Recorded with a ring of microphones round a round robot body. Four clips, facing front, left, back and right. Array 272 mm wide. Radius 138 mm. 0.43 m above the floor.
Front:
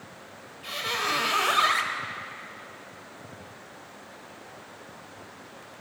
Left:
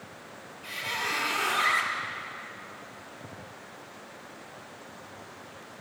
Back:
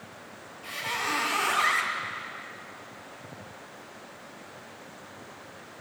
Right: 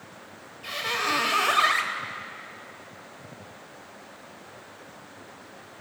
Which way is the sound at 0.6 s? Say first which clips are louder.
Right 5 dB, front 2 dB; 55° right.